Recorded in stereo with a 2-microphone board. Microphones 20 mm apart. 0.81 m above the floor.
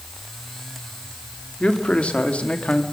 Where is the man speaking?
55° left (ahead or behind), 2.5 m; by 2.8 s 60° left (ahead or behind), 1.8 m.